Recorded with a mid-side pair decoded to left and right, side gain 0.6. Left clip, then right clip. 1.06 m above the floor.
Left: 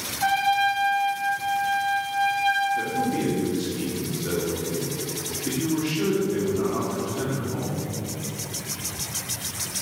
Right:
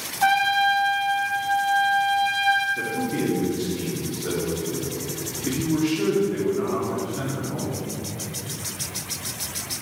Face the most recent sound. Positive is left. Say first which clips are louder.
# left 1 dB
turn(degrees=-10)